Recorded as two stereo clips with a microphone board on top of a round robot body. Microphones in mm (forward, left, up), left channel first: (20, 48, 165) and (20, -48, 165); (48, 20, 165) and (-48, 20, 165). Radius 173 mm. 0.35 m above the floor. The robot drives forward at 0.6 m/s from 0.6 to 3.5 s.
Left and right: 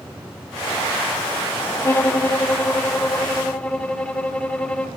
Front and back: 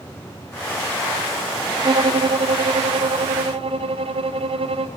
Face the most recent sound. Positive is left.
turn(degrees=170)